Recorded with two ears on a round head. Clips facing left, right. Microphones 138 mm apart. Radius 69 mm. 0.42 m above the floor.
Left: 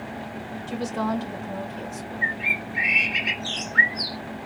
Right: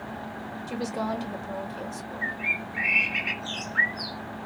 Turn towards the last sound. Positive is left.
turn(degrees=45)  # may be behind; listen again after turning